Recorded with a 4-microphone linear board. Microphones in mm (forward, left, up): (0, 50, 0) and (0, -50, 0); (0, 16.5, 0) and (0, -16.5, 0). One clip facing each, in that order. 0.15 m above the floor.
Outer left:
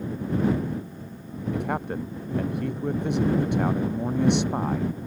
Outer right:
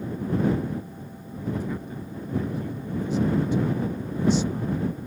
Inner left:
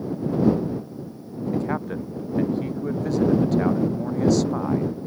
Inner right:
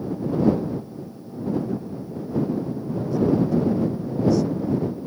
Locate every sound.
1.5 s a man speaking: 65° left (ahead or behind)